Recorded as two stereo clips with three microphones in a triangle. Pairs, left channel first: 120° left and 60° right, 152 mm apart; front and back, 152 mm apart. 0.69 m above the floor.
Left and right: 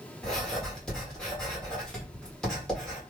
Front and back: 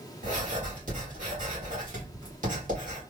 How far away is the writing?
About 1.7 m.